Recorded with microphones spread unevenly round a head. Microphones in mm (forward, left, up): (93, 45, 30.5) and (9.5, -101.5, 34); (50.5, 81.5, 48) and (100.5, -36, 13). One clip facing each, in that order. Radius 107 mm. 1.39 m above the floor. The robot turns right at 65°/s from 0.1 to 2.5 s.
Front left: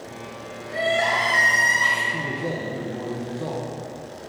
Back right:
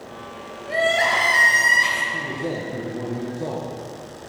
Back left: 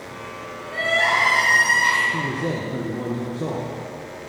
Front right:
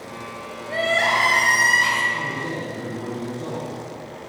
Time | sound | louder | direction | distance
0.7 | crying | back right 2 dB, front right 1 dB | 125° right | 2.5 m
2.1 | a man speaking | back right 2 dB, back left 3 dB | 135° left | 1.1 m